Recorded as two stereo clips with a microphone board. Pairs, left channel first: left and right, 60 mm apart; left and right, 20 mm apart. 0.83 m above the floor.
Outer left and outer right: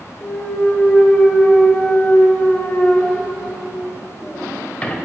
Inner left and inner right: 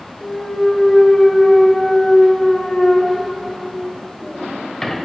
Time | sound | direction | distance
0.2 | a clunk | 25° left (ahead or behind) | 1.5 m